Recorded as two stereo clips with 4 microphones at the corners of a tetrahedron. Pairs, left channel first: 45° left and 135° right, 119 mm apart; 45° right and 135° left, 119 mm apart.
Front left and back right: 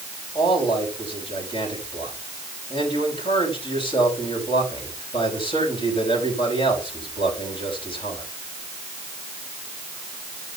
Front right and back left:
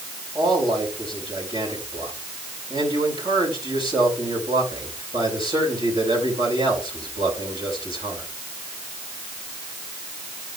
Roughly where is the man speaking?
Left.